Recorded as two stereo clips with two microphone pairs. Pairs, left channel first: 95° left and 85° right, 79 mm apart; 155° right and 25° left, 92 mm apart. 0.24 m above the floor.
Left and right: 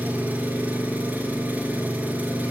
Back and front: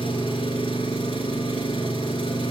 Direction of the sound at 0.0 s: 155° right.